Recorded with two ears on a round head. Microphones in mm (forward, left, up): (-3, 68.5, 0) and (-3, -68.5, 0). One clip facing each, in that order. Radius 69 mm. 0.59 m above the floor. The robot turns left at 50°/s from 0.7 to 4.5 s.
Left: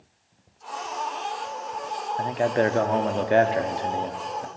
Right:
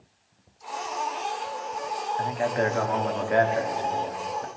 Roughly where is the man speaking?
Behind left.